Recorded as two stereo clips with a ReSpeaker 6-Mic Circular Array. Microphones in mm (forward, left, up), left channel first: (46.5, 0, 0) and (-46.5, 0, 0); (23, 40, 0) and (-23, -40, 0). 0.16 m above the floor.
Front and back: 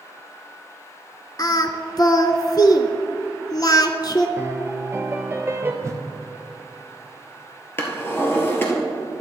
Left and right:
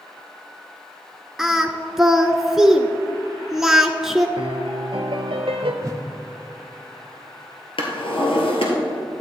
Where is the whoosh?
145° right, 0.6 m.